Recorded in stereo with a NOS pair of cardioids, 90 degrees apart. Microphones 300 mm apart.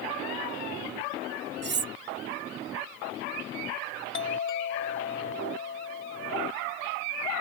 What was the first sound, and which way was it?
Cutlery clinking, 40° right.